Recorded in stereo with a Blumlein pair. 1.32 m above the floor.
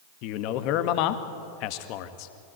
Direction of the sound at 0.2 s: 40° left.